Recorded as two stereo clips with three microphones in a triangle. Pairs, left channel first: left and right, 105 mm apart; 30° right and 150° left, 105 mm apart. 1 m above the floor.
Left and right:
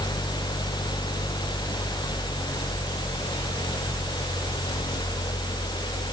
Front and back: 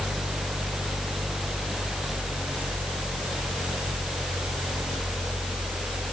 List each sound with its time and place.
Only background noise.